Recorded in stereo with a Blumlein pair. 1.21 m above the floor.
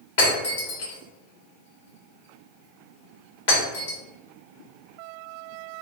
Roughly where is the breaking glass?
Ahead left.